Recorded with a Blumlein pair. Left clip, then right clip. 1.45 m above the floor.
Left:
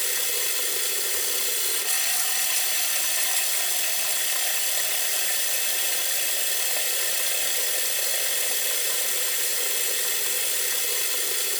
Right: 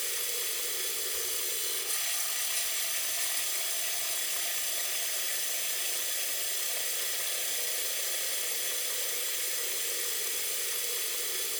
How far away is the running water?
About 3 m.